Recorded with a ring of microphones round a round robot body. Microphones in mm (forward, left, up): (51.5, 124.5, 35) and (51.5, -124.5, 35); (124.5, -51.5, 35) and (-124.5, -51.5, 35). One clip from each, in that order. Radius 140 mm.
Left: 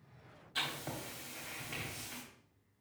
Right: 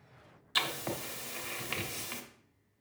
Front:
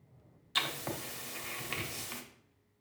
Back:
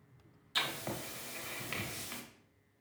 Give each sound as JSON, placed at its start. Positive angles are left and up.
{"t": 0.6, "sound": "writing", "azimuth_deg": -75, "distance_m": 1.1}